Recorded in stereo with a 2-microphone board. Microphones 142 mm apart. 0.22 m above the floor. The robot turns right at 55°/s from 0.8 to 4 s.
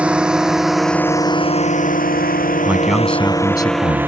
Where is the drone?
10° right (ahead or behind); by 4.1 s 15° right (ahead or behind).